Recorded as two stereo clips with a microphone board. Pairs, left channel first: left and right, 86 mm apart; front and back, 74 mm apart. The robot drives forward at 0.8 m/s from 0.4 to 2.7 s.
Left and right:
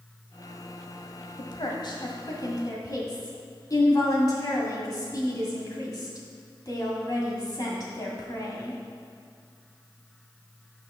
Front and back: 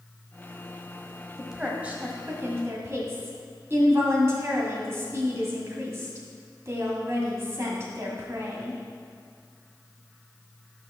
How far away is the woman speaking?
About 1.5 m.